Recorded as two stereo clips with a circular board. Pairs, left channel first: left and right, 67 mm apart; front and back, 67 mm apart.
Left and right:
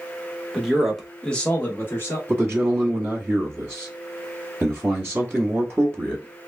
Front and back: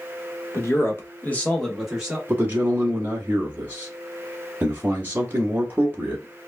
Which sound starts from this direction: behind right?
A man speaking, at 2.3 s.